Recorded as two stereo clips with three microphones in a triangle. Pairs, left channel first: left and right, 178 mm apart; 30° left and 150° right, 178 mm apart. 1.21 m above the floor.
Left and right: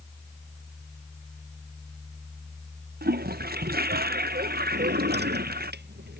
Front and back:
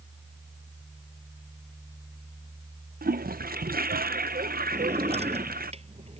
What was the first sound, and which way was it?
A toilet flushing, 115° right.